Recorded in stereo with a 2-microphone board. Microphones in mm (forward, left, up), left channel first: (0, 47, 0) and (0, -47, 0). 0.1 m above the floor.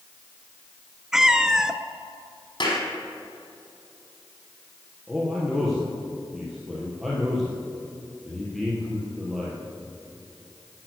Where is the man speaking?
Centre (ahead or behind), 3 m.